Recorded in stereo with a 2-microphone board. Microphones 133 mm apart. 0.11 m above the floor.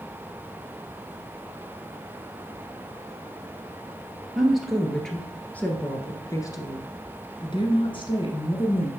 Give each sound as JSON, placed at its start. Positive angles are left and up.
{"t": 4.3, "sound": "a woman speaking", "side_deg": -5, "distance_m": 1.9}